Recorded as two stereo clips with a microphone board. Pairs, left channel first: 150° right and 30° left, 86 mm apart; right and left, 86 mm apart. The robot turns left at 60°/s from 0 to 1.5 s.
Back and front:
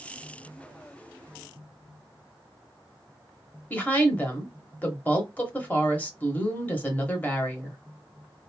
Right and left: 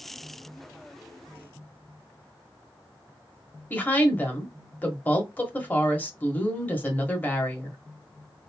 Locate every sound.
3.7 s a woman speaking: 120° right, 1.0 m